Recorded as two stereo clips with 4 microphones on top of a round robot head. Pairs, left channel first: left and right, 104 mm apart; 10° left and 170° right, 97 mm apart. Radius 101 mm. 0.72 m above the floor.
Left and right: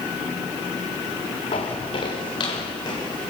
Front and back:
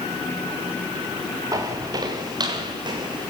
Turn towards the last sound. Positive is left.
turn(degrees=150)